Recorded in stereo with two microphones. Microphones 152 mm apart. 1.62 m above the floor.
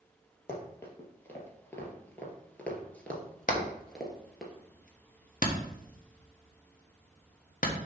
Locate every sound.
0.5 s running footsteps: 15° left (ahead or behind), 2 m; by 4.5 s centre (ahead or behind), 1.7 m
3.5 s hammering: 65° left (ahead or behind), 1.1 m